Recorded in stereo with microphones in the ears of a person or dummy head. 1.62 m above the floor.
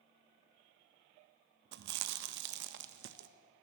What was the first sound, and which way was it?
Chewing, 60° right (ahead or behind).